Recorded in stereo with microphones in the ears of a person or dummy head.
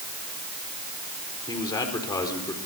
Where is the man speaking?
25° left (ahead or behind), 4 m.